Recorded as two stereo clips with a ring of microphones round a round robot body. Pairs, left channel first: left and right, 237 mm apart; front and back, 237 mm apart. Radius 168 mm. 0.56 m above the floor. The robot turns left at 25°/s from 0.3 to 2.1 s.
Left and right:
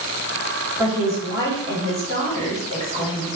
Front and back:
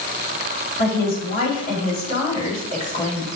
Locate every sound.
0.8 s a woman speaking: 5° right, 1.3 m; by 3.3 s 40° right, 1.3 m